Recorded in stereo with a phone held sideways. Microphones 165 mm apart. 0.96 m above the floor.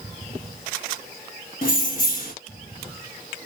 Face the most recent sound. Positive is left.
turn(degrees=55)  # may be behind; listen again after turning